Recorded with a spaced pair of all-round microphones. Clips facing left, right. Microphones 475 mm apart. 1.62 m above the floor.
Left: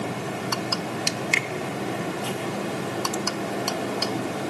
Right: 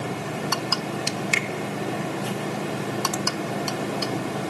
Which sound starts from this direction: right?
A finger snap, at 1.3 s.